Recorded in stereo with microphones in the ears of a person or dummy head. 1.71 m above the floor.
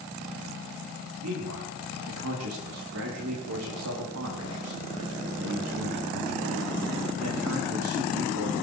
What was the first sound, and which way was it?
A man speaking, 80° right.